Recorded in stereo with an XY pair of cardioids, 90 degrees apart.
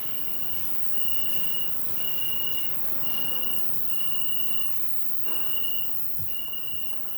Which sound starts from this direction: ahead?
An insect, at 0.0 s.